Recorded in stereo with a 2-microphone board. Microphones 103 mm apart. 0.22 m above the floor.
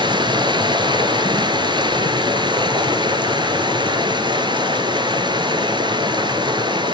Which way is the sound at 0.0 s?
50° right (ahead or behind).